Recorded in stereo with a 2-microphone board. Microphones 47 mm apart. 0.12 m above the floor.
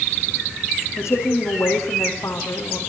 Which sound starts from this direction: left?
A woman speaking, at 1.0 s.